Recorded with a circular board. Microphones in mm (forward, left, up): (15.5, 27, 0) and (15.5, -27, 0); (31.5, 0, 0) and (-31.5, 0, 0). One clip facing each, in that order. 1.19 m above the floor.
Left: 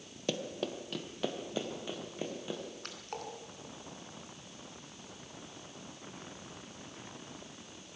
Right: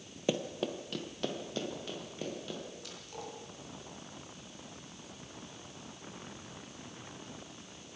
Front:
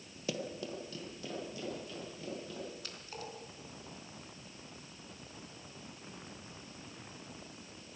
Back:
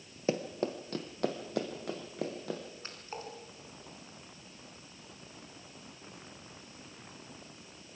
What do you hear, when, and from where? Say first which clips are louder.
0.3 s running footsteps: right 3 dB, back 7 dB; 160° right, 1.4 m; by 2.6 s 165° left, 4.5 m
2.8 s a splash: left 2 dB, back 2 dB; 120° left, 3.5 m